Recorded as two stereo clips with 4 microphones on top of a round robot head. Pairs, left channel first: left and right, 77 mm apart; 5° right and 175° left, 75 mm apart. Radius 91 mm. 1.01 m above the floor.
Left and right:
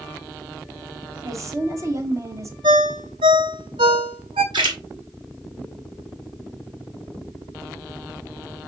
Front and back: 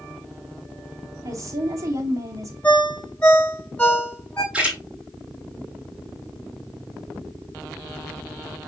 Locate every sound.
1.2 s a woman speaking: 135° right, 2 m
2.6 s a ringtone: 80° right, 0.6 m
4.5 s a splash: 105° right, 2 m